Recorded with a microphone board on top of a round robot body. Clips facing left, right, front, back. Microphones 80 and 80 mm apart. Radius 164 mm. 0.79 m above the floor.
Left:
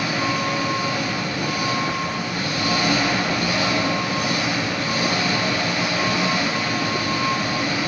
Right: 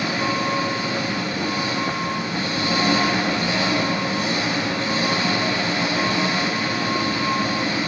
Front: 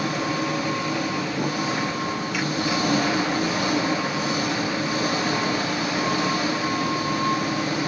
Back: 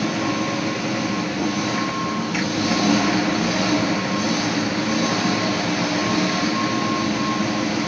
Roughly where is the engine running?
Behind right.